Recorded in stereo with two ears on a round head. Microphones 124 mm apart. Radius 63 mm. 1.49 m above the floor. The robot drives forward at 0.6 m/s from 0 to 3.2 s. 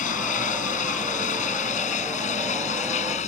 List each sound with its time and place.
0.0 s running water: 65° left (ahead or behind); by 3.3 s 55° left (ahead or behind)